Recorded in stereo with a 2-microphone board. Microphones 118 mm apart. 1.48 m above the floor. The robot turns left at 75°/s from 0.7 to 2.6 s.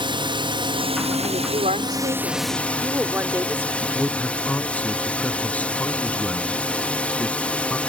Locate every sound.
0.0 s a drone: 50° right; by 7.9 s 170° left
1.2 s a woman speaking: 60° right; by 3.7 s 160° right
3.8 s a man speaking: 10° left (ahead or behind)